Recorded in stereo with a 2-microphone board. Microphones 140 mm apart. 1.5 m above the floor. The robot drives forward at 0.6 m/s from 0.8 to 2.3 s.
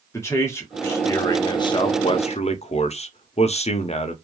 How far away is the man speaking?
About 1.1 m.